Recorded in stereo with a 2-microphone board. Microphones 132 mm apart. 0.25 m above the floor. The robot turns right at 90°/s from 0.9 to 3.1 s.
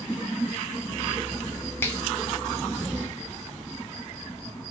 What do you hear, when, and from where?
1.8 s a finger snap: 20° left (ahead or behind), 0.8 m; by 2.0 s 15° left (ahead or behind), 0.8 m